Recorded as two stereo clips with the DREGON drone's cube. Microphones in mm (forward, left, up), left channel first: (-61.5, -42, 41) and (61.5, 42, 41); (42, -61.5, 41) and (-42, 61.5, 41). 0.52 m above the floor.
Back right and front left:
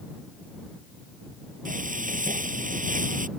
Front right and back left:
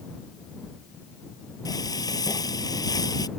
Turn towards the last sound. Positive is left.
turn(degrees=10)